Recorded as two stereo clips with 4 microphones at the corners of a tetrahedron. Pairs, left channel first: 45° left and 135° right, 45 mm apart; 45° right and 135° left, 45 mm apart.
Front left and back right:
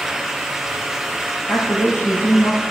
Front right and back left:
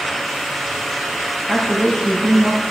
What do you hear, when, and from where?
1.5 s a woman speaking: 35° left, 4 m; by 2.6 s 40° left, 3.5 m